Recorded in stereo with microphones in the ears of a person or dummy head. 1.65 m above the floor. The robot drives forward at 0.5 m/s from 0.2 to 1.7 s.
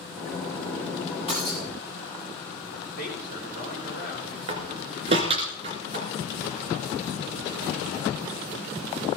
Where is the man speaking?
55° left (ahead or behind), 6 m.